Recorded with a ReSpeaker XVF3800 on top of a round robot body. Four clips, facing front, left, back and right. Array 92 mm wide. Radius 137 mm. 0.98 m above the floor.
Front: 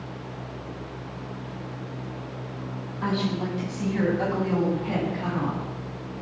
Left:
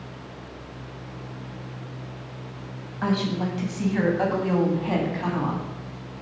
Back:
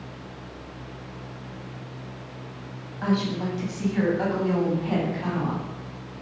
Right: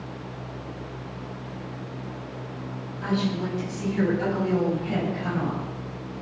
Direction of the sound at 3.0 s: 100° left.